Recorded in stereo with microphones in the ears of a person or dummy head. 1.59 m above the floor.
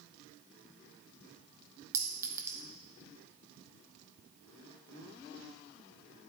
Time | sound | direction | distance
1.9 | a clink | 15° right (ahead or behind) | 0.9 m